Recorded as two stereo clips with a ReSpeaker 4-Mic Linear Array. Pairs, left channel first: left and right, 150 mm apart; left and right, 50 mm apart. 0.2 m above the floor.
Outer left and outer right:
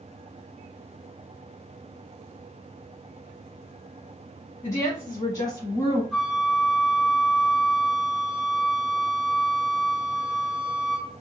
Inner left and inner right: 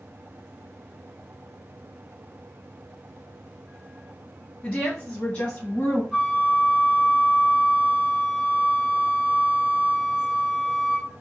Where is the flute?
Centre (ahead or behind), 1.1 m.